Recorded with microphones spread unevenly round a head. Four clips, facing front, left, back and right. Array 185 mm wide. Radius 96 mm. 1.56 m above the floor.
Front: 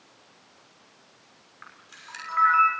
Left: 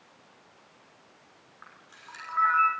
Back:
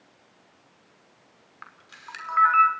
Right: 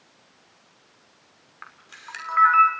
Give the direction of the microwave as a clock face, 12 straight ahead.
No microwave in this recording.